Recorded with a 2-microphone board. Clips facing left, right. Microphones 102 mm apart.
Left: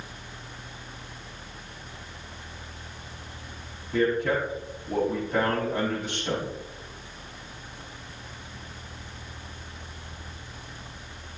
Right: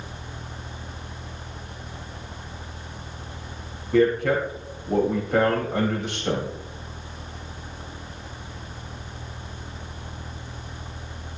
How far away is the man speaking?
About 5 m.